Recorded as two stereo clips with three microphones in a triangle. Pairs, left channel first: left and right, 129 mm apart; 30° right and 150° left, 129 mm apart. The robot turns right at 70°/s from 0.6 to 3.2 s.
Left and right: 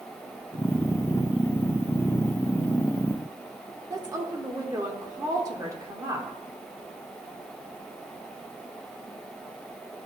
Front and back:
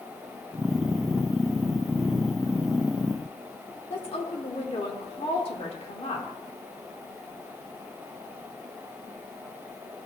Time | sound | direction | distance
3.9 | a woman speaking | 35° right | 1.4 m